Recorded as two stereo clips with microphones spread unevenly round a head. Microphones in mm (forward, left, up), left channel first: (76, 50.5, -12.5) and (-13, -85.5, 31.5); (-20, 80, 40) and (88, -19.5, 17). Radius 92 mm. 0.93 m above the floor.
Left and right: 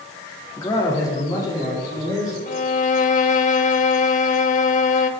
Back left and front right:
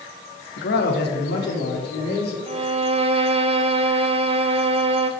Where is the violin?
10° left, 0.7 m.